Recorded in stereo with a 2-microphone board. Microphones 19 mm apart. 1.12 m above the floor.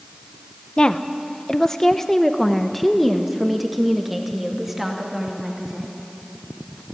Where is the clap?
I don't hear a clap.